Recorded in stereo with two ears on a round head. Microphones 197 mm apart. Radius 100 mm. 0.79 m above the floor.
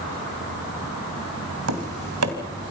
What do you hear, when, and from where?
1.7 s tapping: 70° right (ahead or behind), 2.5 m